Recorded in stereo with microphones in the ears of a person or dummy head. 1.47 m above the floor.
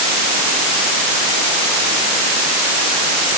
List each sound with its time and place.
Only background noise.